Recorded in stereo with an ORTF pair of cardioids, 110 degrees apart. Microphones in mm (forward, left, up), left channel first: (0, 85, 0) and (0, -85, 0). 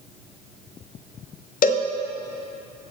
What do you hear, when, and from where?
1.6 s a cowbell: 55° left, 0.6 m